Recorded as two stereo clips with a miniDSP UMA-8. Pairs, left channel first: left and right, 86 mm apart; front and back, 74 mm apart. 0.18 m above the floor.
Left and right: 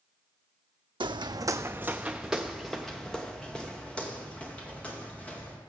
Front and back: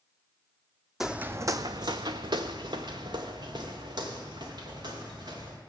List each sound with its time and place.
1.0 s footsteps: 95° right, 0.5 m; by 5.6 s 165° left, 3.5 m